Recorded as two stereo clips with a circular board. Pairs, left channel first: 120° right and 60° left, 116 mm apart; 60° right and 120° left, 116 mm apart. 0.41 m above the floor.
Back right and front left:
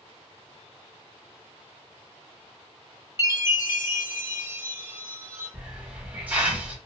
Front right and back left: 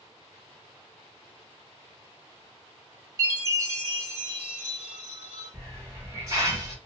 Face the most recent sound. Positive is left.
turn(degrees=120)